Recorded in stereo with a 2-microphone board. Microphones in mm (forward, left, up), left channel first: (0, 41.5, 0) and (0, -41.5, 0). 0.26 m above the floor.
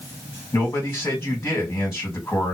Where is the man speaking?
30° left (ahead or behind), 2.0 m.